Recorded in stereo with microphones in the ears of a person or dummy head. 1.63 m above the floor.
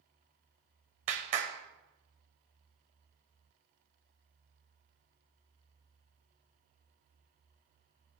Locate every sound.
1.1 s a clap: 35° right (ahead or behind), 0.8 m